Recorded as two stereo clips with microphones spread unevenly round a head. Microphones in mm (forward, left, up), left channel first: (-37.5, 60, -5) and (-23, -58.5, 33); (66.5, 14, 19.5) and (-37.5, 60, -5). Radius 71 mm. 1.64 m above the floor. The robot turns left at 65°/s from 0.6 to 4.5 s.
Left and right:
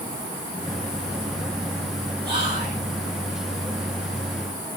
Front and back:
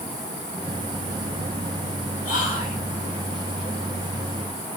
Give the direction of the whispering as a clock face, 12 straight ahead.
1 o'clock.